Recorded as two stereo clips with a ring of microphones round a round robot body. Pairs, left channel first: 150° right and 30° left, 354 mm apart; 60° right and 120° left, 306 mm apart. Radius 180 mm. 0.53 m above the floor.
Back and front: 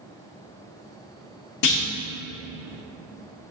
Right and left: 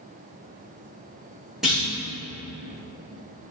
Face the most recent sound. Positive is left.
turn(degrees=-150)